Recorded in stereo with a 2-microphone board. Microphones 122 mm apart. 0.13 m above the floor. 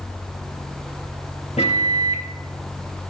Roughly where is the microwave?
Left.